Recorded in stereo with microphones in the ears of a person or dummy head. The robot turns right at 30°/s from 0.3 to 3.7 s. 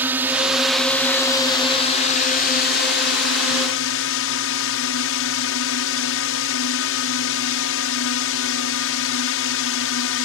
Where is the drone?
10° right; by 10.3 s 90° left.